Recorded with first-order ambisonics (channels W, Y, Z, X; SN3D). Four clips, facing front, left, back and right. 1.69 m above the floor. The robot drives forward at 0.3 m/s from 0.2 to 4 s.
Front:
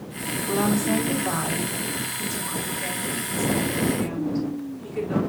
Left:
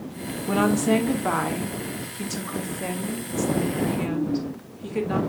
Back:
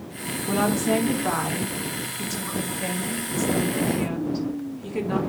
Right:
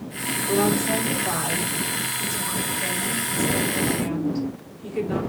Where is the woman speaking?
105° left, 2 m; by 5.2 s 130° left, 2.5 m.